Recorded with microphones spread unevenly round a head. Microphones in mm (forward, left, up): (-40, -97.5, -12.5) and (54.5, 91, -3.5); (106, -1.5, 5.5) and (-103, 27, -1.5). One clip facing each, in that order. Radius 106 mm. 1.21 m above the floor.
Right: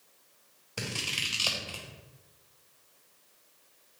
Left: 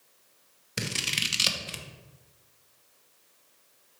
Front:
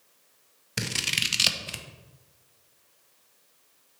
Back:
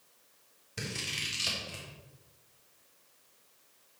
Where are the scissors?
Straight ahead, 0.7 m.